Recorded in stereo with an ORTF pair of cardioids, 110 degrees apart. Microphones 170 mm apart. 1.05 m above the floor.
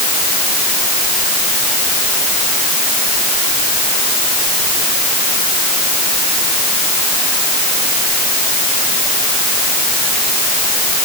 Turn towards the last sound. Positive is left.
No sound to turn to.